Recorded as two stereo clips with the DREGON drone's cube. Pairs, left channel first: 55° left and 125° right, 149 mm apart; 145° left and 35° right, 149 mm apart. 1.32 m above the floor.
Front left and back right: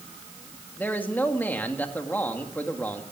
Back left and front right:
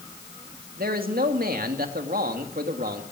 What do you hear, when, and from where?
0.8 s a man speaking: 25° right, 1.9 m